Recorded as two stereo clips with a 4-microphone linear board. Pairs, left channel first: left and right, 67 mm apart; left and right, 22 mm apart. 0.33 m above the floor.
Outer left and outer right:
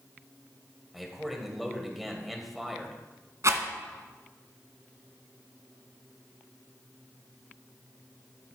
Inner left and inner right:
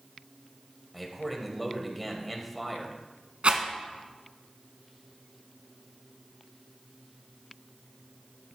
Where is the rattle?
50° right (ahead or behind), 1.3 m.